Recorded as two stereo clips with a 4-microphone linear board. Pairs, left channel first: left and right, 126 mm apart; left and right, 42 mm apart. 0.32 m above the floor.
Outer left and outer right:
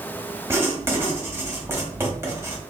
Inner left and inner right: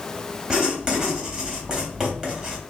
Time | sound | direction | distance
0.5 | writing | 20° right (ahead or behind) | 1.0 m